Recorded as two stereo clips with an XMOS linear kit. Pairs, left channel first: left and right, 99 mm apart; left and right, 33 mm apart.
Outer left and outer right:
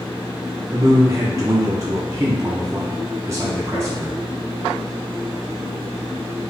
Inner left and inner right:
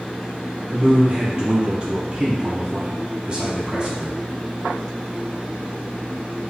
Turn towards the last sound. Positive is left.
turn(degrees=-30)  # may be behind; listen again after turning